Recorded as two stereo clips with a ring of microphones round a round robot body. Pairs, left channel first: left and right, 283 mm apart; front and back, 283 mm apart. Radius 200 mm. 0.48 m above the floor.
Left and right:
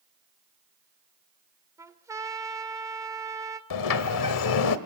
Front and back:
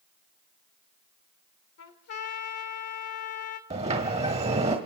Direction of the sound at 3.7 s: 105° left.